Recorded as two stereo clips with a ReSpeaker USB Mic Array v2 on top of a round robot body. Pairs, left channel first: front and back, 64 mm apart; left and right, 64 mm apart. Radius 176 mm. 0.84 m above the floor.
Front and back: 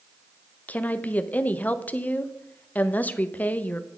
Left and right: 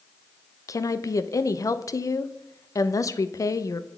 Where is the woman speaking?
60° left, 0.5 m.